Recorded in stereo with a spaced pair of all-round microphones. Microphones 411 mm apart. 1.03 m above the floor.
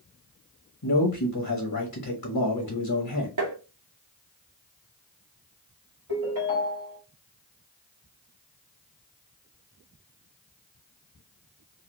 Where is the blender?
I don't hear a blender.